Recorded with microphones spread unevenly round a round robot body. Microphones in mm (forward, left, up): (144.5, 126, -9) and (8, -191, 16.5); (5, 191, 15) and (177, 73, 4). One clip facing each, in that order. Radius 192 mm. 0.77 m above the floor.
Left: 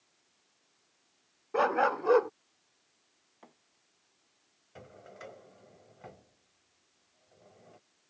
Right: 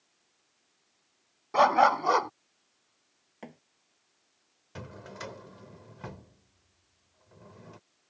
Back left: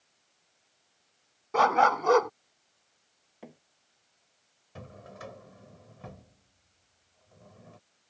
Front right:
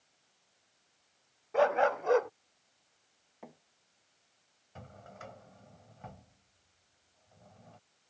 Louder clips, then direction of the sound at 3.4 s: Right 13 dB, back left 3 dB; 140° right.